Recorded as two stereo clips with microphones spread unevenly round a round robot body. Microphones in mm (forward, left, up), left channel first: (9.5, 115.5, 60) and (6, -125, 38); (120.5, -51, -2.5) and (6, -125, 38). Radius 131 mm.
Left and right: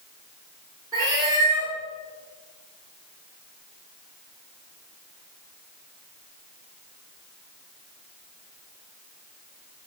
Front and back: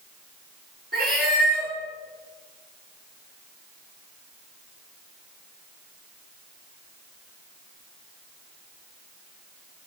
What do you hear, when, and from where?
0.9 s a cat meowing: 170° right, 3 m